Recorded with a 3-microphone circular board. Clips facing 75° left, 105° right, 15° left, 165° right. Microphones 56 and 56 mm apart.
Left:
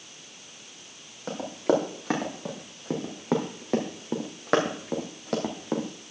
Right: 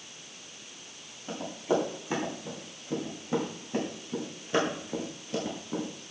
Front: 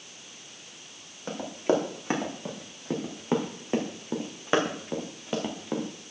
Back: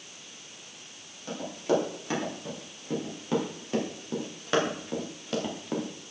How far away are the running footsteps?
About 4 m.